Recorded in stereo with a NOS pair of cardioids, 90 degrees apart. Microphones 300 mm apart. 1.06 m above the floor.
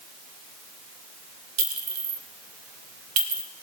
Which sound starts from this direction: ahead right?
A clink, at 1.6 s.